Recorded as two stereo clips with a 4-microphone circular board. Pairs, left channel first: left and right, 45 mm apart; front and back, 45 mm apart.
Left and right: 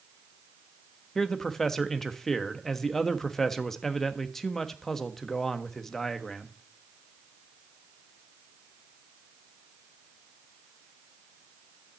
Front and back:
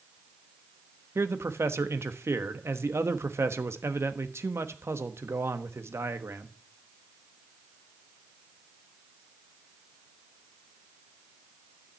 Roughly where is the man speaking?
Behind.